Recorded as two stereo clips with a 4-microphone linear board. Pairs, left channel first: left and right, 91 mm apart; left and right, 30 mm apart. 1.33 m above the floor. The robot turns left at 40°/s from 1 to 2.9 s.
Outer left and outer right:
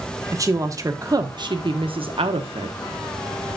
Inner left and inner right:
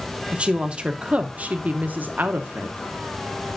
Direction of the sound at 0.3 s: 35° right.